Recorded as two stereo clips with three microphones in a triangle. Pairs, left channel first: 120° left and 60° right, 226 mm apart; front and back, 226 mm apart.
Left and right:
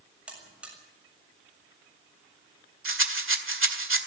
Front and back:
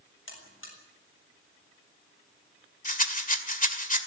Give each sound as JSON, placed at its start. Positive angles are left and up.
{"t": 0.3, "sound": "a buzzer", "azimuth_deg": 25, "distance_m": 7.0}
{"t": 2.9, "sound": "a rattle", "azimuth_deg": -50, "distance_m": 2.0}